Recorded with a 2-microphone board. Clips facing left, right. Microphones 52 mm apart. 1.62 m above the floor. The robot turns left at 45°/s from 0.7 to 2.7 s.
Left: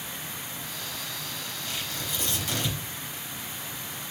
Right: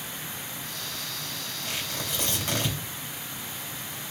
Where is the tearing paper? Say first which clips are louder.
Right 2 dB; 95° right, 2.5 m; by 2.8 s 145° right, 2.5 m.